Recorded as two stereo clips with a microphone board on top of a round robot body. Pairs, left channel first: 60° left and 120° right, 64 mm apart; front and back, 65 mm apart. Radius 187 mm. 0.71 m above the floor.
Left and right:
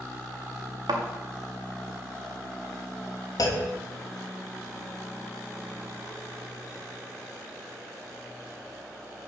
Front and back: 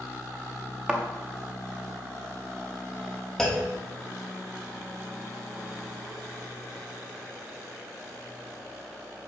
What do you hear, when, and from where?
0.9 s a thud: 100° right, 0.9 m
3.4 s a clunk: 80° left, 1.2 m